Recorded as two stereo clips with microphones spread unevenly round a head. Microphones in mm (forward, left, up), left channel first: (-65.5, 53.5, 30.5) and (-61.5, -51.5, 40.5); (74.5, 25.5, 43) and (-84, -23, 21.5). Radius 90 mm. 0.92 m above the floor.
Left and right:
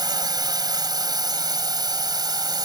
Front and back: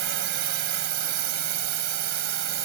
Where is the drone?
140° right.